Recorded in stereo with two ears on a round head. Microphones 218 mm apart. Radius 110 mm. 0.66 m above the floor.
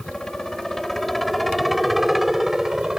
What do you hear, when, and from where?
0.0 s a helicopter: centre (ahead or behind)